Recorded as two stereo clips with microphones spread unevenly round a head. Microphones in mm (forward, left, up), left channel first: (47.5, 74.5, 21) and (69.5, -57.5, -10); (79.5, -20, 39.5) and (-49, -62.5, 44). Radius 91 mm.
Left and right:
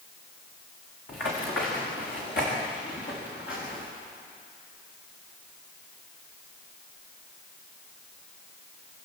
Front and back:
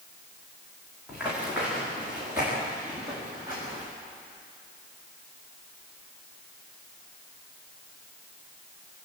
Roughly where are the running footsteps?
Behind left.